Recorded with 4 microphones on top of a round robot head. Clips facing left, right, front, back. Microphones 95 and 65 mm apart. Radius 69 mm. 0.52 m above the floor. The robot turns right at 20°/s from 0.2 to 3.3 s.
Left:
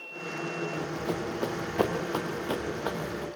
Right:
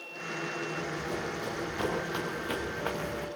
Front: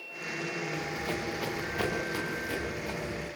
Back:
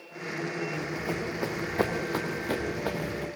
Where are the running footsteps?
90° left, 3.5 m; by 3.2 s 175° left, 3 m.